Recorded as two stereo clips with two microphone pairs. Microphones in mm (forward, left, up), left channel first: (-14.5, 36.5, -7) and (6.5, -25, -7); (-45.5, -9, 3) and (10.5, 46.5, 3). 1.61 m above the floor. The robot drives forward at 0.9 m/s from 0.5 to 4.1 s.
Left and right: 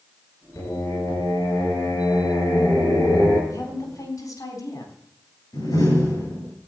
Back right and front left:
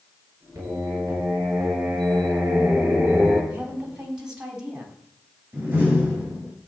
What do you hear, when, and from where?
0.6 s singing: 90° left, 8.5 m; by 3.4 s 110° left, 9 m
3.5 s a woman speaking: 115° left, 3.5 m; by 5.0 s 120° left, 3.5 m
5.5 s a door slam: 115° left, 10 m